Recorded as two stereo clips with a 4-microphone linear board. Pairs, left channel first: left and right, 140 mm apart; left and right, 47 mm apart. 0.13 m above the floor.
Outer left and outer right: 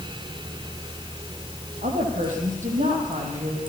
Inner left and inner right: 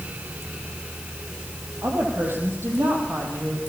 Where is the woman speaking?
70° right (ahead or behind), 4.5 m; by 3.6 s 75° right (ahead or behind), 5 m.